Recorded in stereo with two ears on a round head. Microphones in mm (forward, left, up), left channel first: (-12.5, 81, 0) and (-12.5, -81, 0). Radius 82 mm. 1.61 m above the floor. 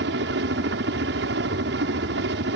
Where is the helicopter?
65° right (ahead or behind).